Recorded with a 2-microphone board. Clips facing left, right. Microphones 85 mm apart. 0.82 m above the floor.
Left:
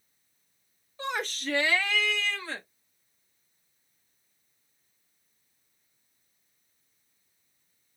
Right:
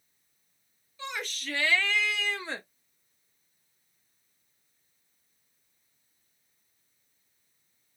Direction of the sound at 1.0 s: 40° left (ahead or behind).